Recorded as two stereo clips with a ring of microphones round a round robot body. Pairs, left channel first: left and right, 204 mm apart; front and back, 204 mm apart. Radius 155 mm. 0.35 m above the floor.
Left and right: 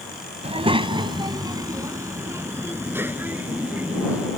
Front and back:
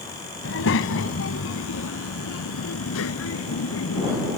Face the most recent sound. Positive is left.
turn(degrees=-5)